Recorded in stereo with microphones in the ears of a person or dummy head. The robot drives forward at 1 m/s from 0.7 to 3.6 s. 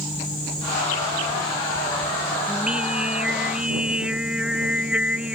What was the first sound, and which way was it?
Singing, 5° right (ahead or behind).